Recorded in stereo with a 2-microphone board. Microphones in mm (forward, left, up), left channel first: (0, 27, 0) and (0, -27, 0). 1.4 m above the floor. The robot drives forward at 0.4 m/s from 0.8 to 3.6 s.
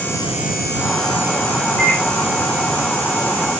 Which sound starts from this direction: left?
A microwave, at 1.8 s.